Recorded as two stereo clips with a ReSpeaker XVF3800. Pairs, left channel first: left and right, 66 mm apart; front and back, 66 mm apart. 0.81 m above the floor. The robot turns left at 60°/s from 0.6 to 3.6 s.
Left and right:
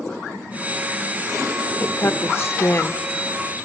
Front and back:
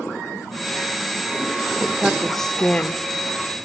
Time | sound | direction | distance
1.8 | a woman speaking | 120° left | 0.8 m